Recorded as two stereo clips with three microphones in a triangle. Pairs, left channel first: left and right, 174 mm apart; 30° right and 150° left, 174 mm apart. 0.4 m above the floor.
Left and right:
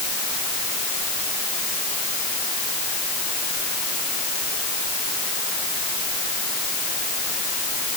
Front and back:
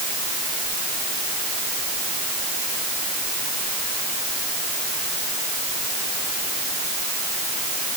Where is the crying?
No crying in this recording.